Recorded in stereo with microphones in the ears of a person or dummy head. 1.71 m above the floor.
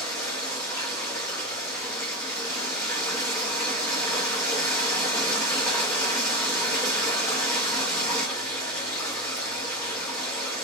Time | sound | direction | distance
0.0 | running water | 15° left (ahead or behind) | 1.3 m